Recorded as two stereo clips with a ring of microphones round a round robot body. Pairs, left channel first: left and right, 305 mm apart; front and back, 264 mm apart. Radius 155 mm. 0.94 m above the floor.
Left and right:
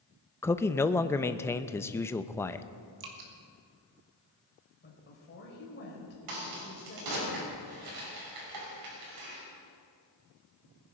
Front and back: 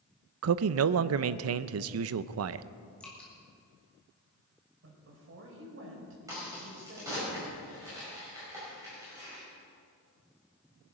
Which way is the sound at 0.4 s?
170° left.